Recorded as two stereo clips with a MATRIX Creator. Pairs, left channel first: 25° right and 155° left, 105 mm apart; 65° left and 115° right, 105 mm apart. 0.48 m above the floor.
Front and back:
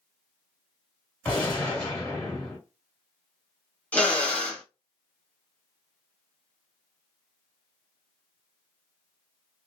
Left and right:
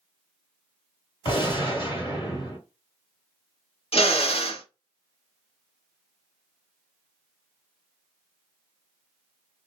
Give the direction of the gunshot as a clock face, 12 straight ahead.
10 o'clock.